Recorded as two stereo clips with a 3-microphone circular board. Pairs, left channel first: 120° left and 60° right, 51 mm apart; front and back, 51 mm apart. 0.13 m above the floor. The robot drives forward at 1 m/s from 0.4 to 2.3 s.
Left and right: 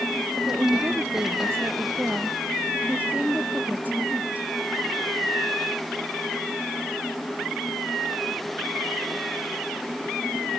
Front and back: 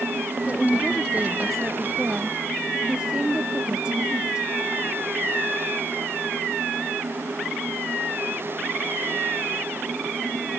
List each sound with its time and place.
0.5 s a woman speaking: 55° right; by 4.5 s 110° right